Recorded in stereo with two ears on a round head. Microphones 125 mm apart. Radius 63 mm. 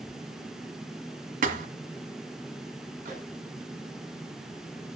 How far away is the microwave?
About 9.5 m.